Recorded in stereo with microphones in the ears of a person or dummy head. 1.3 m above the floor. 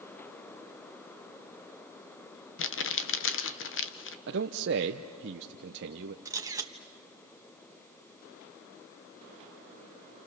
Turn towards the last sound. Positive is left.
turn(degrees=-15)  # may be behind; listen again after turning